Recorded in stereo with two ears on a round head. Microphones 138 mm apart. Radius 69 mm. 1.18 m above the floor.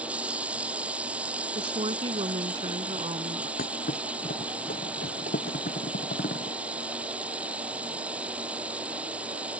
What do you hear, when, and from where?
0.0 s running water: 10° right (ahead or behind)
1.6 s a woman speaking: 30° right (ahead or behind)
3.6 s a thud: 55° left (ahead or behind)